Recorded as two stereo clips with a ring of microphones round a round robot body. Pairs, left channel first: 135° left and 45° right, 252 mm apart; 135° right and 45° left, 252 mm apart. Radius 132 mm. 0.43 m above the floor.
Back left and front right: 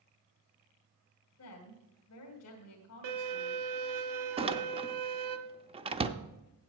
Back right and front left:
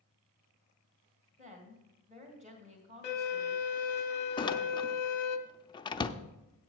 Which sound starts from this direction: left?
A woman speaking, at 1.4 s.